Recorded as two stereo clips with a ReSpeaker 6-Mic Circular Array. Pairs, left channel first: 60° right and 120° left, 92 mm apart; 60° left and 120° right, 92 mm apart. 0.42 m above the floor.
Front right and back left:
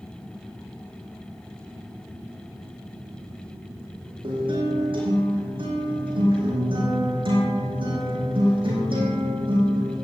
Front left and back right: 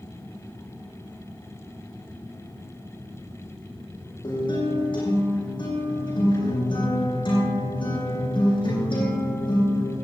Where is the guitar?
95° left, 9 m.